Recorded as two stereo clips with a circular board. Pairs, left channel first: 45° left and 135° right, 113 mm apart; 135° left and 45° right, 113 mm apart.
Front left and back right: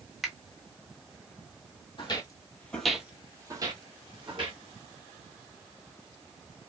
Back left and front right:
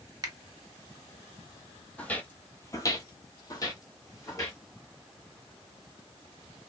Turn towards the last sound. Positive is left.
turn(degrees=-165)